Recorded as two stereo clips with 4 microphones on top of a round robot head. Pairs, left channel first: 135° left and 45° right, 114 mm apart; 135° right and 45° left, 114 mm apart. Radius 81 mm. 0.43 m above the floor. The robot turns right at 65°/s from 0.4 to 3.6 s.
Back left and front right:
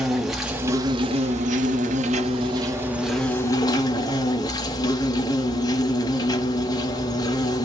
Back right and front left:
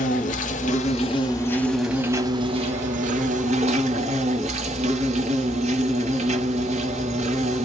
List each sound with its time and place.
0.0 s an insect: 135° right, 1.1 m; by 7.7 s 75° left, 1.1 m